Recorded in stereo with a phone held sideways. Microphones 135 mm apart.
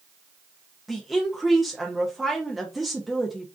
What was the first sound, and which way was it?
A woman speaking, centre (ahead or behind).